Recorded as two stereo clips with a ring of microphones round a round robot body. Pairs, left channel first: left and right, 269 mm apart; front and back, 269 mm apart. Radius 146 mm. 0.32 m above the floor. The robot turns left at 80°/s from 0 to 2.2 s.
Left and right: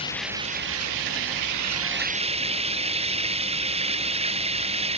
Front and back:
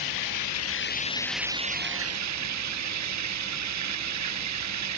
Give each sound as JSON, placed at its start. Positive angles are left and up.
{"t": 0.0, "sound": "running water", "azimuth_deg": 20}